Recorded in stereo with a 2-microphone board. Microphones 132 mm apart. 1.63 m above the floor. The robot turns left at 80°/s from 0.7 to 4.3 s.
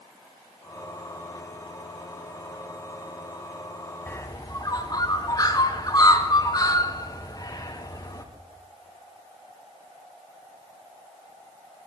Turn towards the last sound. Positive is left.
turn(degrees=30)  # may be behind; listen again after turning